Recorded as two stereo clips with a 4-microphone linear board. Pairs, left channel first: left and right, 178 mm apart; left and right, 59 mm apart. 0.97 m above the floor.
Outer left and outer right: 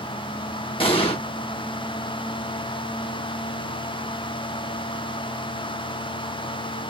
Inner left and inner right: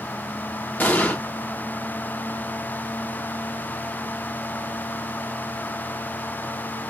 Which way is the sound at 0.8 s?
30° left (ahead or behind).